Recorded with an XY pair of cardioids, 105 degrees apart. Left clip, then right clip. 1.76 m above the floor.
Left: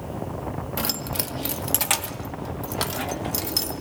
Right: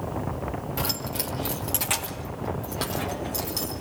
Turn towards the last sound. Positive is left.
turn(degrees=50)